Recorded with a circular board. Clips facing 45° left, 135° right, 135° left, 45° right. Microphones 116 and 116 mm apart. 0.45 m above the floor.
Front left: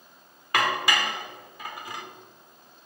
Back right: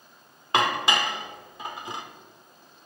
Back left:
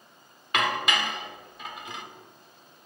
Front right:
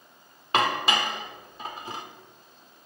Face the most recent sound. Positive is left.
turn(degrees=-80)